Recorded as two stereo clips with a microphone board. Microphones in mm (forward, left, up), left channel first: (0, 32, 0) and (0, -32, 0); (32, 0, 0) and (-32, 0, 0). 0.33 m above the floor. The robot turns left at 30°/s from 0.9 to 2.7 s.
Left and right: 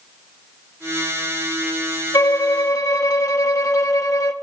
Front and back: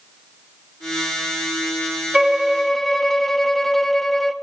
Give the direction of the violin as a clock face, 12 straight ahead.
9 o'clock.